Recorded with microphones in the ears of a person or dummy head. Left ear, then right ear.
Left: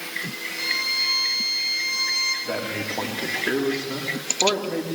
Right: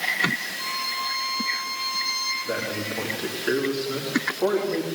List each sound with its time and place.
0.6 s a violin: 65° left (ahead or behind), 5.5 m
2.5 s a man speaking: 75° left (ahead or behind), 3 m